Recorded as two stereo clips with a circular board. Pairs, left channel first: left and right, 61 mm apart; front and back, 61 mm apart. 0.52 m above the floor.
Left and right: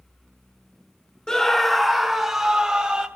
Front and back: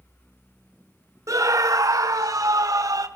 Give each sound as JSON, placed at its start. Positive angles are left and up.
{"t": 1.3, "sound": "a scream", "azimuth_deg": 170, "distance_m": 1.1}